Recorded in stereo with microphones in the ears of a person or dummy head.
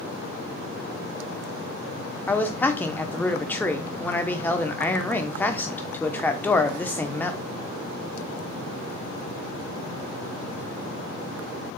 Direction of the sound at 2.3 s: 15° left (ahead or behind).